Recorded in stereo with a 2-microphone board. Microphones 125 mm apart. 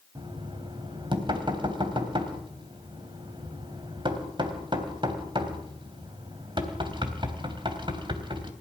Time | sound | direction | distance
0.1 | knocking | 40° right (ahead or behind) | 3 m